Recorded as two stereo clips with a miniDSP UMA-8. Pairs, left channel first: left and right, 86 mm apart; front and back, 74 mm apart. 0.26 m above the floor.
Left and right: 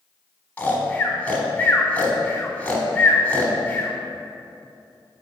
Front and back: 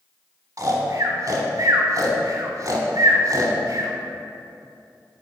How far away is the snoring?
About 0.9 m.